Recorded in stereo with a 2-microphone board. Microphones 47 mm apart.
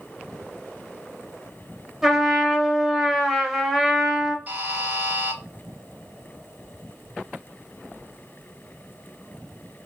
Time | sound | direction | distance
2.0 | a trumpet | 10° right (ahead or behind) | 1.0 m
4.5 | a buzzer | 30° right (ahead or behind) | 2.5 m